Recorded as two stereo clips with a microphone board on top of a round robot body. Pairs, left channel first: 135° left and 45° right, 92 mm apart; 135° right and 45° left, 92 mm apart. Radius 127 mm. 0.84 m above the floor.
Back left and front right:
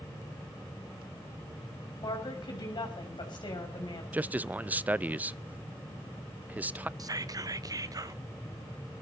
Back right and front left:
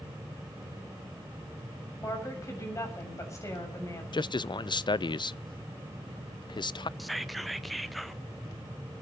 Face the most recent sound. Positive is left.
turn(degrees=-45)